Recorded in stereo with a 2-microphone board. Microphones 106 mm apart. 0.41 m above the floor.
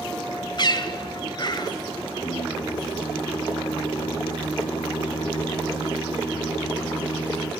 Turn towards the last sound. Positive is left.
turn(degrees=70)  # may be behind; listen again after turning